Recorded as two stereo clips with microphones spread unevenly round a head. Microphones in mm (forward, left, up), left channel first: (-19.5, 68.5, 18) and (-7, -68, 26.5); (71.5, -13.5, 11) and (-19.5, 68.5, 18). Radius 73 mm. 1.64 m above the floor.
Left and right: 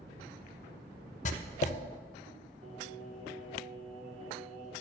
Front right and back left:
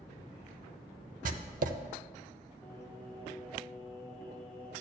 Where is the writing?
130° left, 0.6 m.